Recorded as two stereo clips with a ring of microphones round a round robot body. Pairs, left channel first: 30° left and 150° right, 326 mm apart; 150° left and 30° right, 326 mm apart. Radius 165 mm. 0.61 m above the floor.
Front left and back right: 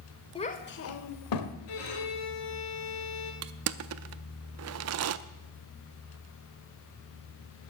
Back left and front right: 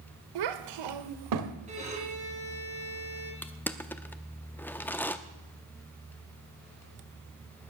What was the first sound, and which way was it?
A child speaking, 45° right.